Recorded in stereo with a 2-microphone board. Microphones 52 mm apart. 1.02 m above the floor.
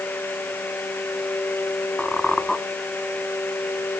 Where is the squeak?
15° left (ahead or behind), 1.0 m.